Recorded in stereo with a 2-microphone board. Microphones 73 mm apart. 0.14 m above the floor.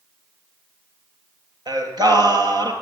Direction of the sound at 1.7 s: 65° right (ahead or behind).